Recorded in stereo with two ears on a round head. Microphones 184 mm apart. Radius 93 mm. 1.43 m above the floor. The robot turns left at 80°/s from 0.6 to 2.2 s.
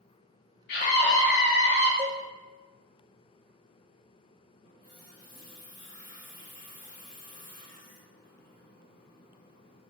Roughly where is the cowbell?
Centre.